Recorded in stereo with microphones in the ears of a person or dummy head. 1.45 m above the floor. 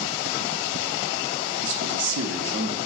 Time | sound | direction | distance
1.6 | a man speaking | 60° right (ahead or behind) | 0.6 m